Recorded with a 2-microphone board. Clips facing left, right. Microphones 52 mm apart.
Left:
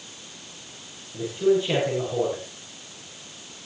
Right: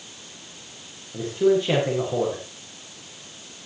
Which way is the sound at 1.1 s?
50° right (ahead or behind).